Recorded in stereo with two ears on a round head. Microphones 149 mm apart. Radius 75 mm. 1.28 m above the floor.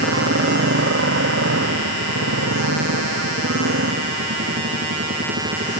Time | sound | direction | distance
0.0 | a motorcycle | 75° right (ahead or behind) | ?